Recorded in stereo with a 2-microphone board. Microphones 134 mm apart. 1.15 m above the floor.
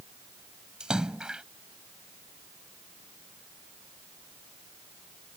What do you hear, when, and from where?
0.8 s a splash: 5° right (ahead or behind)